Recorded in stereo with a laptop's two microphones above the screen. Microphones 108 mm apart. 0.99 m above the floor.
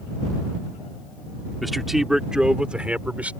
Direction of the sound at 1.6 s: Centre (ahead or behind).